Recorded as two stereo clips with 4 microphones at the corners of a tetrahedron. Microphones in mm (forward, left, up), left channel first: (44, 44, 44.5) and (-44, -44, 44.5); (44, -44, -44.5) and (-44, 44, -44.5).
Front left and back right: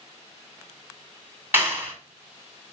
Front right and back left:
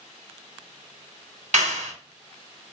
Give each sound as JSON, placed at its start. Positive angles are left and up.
{"t": 1.5, "sound": "a clap", "azimuth_deg": 155, "distance_m": 3.0}